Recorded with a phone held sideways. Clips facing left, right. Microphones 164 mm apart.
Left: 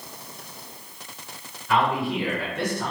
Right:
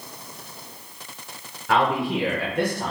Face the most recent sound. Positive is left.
turn(degrees=-30)  # may be behind; listen again after turning